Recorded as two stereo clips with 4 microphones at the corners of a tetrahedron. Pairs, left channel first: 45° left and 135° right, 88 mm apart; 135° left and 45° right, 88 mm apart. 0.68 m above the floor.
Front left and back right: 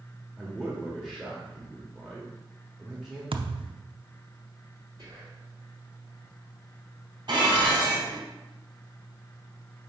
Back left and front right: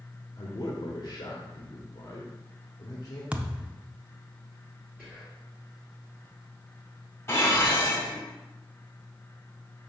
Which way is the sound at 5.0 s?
145° right.